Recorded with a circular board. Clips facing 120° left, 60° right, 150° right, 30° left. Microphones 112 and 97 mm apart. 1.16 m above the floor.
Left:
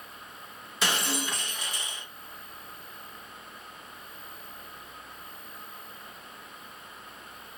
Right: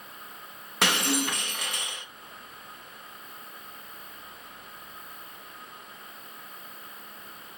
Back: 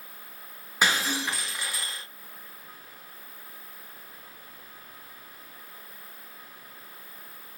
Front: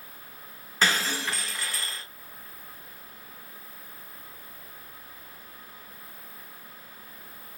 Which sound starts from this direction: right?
Breaking glass, at 0.8 s.